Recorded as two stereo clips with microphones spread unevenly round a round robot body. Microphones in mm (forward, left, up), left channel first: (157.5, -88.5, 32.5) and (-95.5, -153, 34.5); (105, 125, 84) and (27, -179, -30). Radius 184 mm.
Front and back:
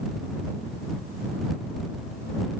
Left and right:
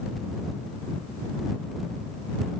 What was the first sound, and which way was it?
Only background noise.